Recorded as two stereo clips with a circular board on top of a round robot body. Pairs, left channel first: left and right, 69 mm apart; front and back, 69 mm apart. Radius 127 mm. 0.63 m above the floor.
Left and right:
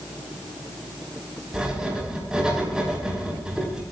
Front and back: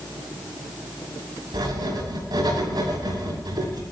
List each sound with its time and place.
1.5 s writing: 170° right, 6 m